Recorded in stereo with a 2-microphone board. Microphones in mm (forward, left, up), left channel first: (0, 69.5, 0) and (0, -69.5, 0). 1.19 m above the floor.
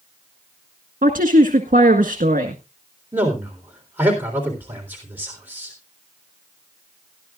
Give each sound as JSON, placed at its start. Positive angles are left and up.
{"t": 1.0, "sound": "a woman speaking", "side_deg": -75, "distance_m": 1.6}
{"t": 3.1, "sound": "a man speaking", "side_deg": -15, "distance_m": 3.5}